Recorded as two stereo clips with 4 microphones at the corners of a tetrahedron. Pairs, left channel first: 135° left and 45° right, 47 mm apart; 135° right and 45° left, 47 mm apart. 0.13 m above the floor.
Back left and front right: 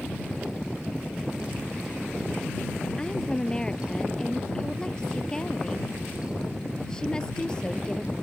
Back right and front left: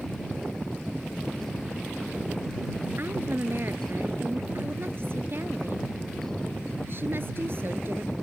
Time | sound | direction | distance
3.0 | a woman speaking | 65° left | ?